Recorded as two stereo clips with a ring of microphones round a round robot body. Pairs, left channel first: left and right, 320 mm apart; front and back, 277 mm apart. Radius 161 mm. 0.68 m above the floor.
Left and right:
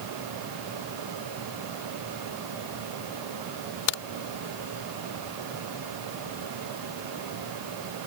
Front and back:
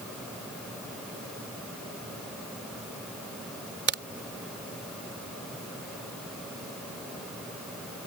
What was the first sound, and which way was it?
A crack, 130° left.